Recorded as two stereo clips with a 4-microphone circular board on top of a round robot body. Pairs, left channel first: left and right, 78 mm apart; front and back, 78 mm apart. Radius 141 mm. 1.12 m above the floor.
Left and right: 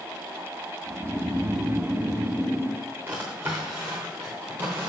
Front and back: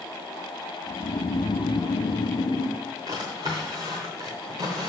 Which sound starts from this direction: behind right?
A drawer, at 3.1 s.